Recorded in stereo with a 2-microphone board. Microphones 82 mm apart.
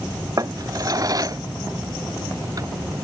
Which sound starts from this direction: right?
A drawer, at 0.4 s.